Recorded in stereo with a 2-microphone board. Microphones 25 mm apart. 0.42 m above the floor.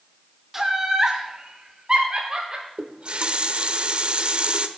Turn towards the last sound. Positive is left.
turn(degrees=-45)  # may be behind; listen again after turning